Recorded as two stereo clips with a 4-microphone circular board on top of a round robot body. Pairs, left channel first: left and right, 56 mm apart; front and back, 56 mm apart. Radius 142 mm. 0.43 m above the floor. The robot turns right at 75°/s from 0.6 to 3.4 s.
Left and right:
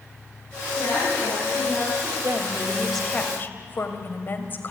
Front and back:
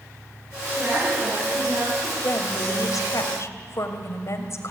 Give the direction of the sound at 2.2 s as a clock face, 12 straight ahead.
2 o'clock.